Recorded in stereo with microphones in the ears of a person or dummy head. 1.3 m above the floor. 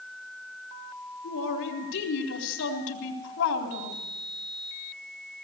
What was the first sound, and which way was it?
A man speaking, 70° left (ahead or behind).